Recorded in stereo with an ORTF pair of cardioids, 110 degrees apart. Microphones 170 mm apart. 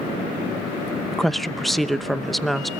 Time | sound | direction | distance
1.1 | a woman speaking | straight ahead | 0.7 m